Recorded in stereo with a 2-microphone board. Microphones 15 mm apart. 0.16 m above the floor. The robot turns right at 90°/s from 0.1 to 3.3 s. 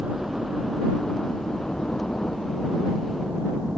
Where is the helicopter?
55° right (ahead or behind); by 3.8 s 40° right (ahead or behind).